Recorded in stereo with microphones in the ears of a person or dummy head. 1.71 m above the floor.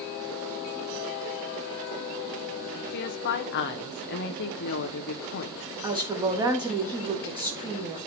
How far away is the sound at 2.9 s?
About 1.0 m.